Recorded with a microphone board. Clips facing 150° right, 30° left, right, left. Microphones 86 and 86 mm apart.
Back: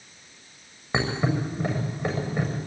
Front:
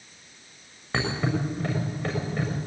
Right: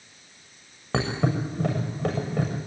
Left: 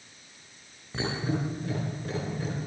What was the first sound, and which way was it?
A thud, 75° right.